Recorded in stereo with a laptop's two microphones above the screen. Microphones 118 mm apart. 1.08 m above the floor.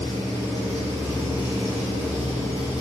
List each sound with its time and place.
0.0 s an engine running: 75° right (ahead or behind), 4 m